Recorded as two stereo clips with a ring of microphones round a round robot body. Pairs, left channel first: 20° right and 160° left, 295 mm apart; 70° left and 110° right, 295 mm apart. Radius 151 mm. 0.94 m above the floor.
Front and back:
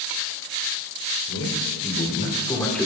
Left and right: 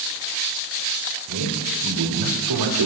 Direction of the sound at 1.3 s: 75° right.